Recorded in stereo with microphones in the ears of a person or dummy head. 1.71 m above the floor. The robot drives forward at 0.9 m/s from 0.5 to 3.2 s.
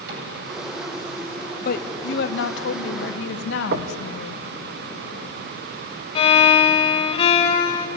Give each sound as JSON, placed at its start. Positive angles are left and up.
{"t": 0.1, "sound": "a cupboard door", "side_deg": -55, "distance_m": 9.5}
{"t": 1.6, "sound": "a woman speaking", "side_deg": 60, "distance_m": 1.8}
{"t": 3.7, "sound": "knocking", "side_deg": -60, "distance_m": 1.4}
{"t": 6.2, "sound": "a violin", "side_deg": 30, "distance_m": 1.7}